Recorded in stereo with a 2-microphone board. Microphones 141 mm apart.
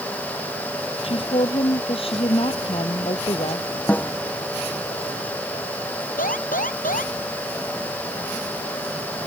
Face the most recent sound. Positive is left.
turn(degrees=75)  # may be behind; listen again after turning